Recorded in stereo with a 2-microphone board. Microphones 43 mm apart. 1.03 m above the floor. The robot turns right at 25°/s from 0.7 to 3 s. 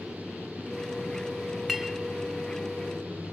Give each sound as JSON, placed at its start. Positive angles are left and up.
{"t": 1.7, "sound": "a clink", "side_deg": 0, "distance_m": 0.6}